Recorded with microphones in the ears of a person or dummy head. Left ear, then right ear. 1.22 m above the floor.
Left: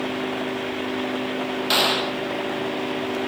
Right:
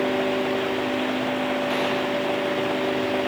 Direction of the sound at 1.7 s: 45° left (ahead or behind).